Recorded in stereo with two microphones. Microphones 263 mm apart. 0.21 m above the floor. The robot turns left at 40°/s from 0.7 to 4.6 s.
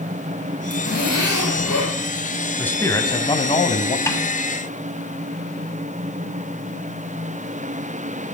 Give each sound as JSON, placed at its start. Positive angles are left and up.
{"t": 0.7, "sound": "a zipper", "azimuth_deg": 140, "distance_m": 5.5}
{"t": 2.6, "sound": "a man speaking", "side_deg": 5, "distance_m": 1.1}
{"t": 4.1, "sound": "a snare drum", "side_deg": 10, "distance_m": 1.4}